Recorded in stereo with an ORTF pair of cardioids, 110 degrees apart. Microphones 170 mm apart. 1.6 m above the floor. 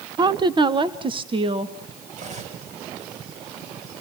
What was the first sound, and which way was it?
A woman speaking, 25° right.